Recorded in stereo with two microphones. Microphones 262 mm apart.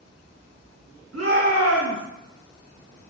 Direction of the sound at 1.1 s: 60° right (ahead or behind).